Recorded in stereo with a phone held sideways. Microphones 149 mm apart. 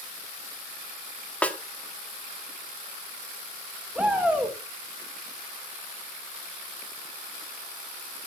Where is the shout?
10° right (ahead or behind), 3 m.